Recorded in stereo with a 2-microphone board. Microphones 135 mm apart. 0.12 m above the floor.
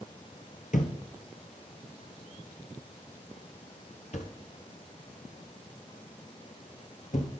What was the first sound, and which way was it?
A thud, 60° left (ahead or behind).